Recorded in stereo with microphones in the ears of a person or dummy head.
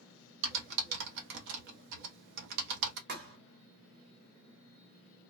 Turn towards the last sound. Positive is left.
turn(degrees=-60)  # may be behind; listen again after turning